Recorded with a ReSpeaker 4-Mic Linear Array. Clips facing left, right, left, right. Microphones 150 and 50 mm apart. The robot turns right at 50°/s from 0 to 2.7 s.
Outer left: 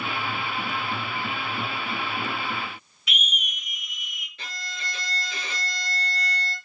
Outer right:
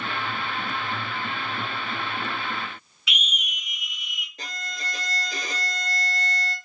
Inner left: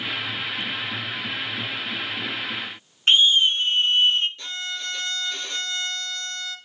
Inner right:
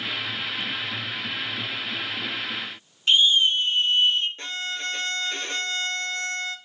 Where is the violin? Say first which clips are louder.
Outer right 2 dB, inner right 1 dB; 45° right (ahead or behind), 0.9 m.